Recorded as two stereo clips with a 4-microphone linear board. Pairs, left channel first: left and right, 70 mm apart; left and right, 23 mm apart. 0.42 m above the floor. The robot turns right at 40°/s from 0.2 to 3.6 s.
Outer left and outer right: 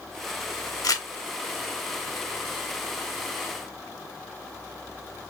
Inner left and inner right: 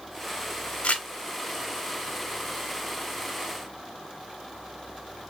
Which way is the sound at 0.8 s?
70° left (ahead or behind).